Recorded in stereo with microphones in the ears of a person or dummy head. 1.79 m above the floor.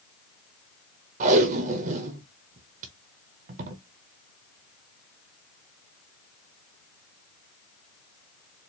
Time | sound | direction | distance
1.2 | tape being pulled | 45° right (ahead or behind) | 0.7 m